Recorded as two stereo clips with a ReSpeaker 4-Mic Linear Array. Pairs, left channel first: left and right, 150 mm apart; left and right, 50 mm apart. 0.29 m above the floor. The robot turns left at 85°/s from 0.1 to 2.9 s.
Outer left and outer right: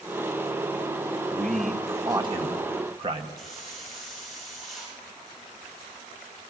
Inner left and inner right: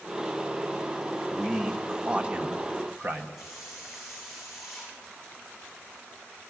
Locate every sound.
1.3 s a man speaking: 25° left, 1.2 m; by 3.3 s 110° right, 1.2 m
3.4 s a hiss: centre (ahead or behind), 7 m